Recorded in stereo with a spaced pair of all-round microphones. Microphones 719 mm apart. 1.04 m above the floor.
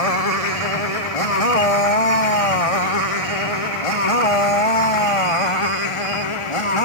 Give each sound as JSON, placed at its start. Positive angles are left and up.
{"t": 0.0, "sound": "a motorcycle", "side_deg": 55}